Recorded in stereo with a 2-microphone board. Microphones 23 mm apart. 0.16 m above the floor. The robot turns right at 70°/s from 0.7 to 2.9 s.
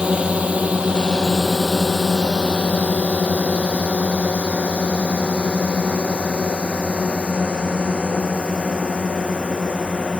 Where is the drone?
60° right (ahead or behind); by 10.2 s 40° left (ahead or behind).